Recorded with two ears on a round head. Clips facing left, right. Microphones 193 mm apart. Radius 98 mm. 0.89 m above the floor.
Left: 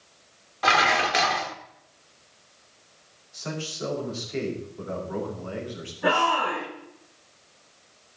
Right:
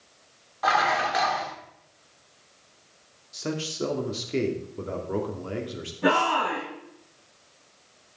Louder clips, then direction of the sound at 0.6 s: Left 1 dB; 35° left (ahead or behind).